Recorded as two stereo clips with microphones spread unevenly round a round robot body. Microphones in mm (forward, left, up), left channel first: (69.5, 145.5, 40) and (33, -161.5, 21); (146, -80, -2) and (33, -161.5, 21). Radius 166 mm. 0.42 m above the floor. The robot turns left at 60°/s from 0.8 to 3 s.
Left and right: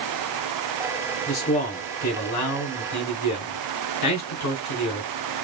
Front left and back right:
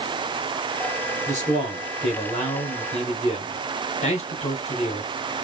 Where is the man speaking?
170° left, 2.0 m; by 5.1 s 65° left, 2.0 m.